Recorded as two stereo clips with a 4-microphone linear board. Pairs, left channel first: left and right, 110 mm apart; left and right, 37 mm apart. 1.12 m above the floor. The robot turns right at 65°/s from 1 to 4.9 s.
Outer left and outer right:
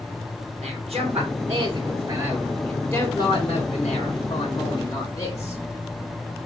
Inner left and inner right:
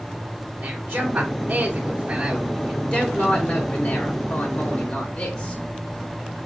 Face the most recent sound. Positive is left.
turn(degrees=150)